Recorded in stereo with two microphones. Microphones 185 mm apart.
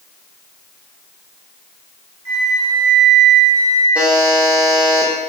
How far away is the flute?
About 1.0 m.